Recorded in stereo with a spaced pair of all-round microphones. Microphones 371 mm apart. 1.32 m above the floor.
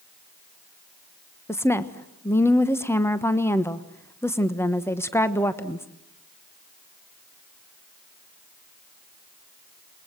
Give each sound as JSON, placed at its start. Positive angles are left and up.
{"t": 1.5, "sound": "a woman speaking", "side_deg": 5, "distance_m": 1.1}